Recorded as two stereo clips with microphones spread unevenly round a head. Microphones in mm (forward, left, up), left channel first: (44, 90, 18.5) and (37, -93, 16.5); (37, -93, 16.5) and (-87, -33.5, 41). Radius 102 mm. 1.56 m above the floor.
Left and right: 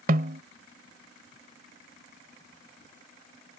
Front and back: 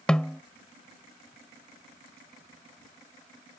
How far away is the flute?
No flute in this recording.